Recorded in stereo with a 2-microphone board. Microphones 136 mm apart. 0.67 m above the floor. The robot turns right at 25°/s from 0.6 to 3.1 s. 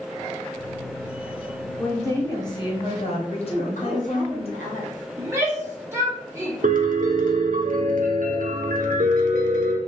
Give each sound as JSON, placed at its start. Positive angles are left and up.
{"t": 1.8, "sound": "a woman speaking", "azimuth_deg": 15, "distance_m": 1.3}
{"t": 3.5, "sound": "a woman speaking", "side_deg": 60, "distance_m": 1.3}
{"t": 5.2, "sound": "a shout", "side_deg": -20, "distance_m": 1.4}
{"t": 6.6, "sound": "a piano", "side_deg": -75, "distance_m": 0.9}